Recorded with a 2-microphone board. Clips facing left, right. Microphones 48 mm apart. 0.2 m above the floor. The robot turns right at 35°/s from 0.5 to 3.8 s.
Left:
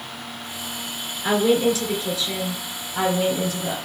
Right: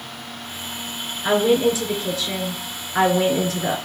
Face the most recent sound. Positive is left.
turn(degrees=-85)